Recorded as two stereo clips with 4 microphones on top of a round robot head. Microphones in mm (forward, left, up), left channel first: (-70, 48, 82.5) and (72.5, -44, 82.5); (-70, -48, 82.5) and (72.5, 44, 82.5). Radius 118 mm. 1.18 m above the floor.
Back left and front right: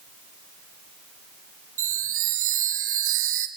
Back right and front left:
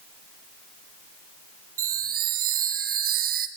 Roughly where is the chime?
Ahead.